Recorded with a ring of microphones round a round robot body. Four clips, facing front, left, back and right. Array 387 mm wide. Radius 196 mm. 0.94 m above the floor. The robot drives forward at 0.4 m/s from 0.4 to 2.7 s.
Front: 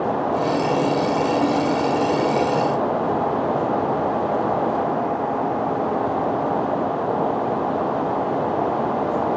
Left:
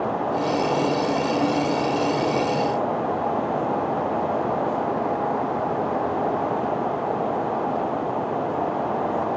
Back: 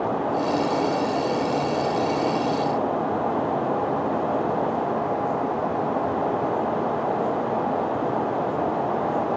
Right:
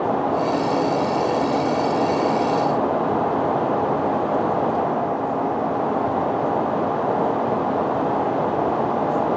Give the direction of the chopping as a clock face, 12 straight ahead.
I don't hear chopping.